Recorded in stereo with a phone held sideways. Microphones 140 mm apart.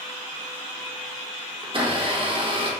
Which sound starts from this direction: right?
A blender, at 1.6 s.